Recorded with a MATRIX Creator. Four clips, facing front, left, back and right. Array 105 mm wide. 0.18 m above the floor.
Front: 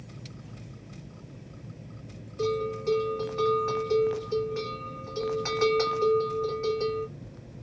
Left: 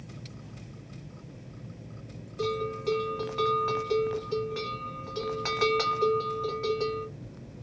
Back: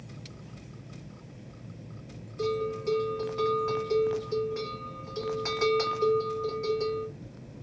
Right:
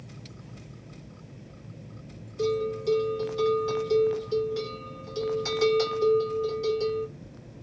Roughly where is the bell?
Left.